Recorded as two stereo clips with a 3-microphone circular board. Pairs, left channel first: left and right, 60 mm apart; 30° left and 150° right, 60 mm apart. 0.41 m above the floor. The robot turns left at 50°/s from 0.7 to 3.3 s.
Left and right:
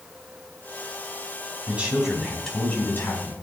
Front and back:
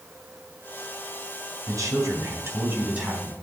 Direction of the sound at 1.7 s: 150° right.